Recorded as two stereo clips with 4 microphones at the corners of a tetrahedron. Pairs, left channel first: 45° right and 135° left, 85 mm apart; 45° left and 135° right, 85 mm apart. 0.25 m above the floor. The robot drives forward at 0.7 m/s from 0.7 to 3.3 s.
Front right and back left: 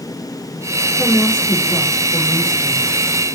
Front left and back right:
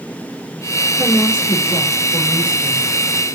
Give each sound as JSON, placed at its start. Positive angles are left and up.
{"t": 1.0, "sound": "a woman speaking", "azimuth_deg": -145, "distance_m": 4.5}